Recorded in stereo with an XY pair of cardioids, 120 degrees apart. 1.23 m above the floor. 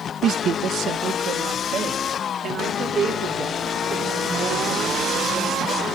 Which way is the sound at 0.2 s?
55° right.